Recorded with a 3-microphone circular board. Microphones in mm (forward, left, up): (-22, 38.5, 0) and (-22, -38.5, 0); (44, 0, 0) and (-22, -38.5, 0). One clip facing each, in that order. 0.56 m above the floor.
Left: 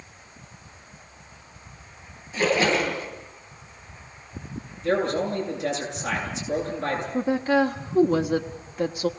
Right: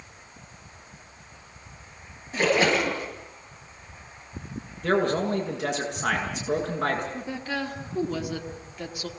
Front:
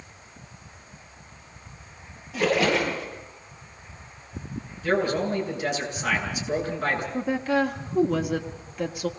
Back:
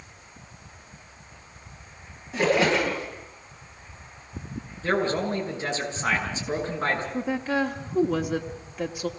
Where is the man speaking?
90° right, 8.5 m.